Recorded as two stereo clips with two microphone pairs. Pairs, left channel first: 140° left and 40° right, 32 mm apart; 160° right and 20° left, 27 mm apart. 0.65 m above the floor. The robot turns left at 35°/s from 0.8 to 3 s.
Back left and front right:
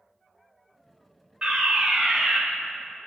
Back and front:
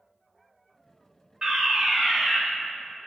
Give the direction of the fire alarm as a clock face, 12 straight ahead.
12 o'clock.